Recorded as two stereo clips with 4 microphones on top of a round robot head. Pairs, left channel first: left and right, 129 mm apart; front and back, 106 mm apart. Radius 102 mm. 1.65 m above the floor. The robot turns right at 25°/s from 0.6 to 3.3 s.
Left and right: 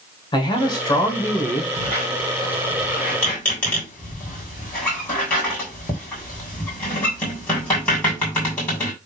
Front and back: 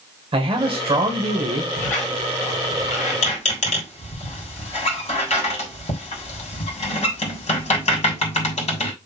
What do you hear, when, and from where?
0.3 s a man speaking: 145° left, 1.7 m; by 1.7 s 170° left, 1.7 m
1.8 s a squeak: 30° right, 3 m; by 8.9 s 10° left, 3 m